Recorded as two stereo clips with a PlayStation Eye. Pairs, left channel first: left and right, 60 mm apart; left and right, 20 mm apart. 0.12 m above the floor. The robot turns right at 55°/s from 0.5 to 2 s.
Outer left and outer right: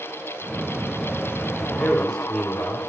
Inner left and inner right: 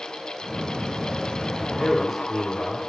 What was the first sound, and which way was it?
A man speaking, 15° left (ahead or behind).